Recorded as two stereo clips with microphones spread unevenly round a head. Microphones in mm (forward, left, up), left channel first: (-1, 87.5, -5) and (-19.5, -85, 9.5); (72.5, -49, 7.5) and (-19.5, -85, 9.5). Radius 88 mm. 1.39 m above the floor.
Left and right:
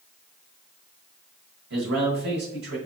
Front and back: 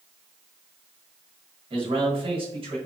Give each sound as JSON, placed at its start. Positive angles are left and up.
{"t": 1.7, "sound": "a man speaking", "azimuth_deg": -125, "distance_m": 1.5}